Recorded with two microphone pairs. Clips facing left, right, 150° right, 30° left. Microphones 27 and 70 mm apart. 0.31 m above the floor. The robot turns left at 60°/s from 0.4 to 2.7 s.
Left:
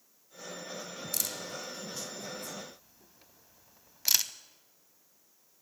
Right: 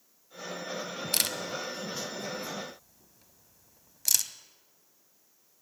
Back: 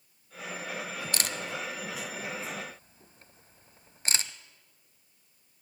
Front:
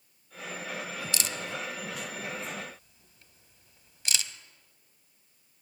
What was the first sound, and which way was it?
A camera shutter, 110° right.